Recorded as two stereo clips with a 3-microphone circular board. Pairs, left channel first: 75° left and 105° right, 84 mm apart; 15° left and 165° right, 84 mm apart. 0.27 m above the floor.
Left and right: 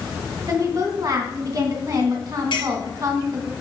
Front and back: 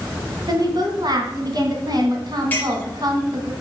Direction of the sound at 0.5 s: 140° right.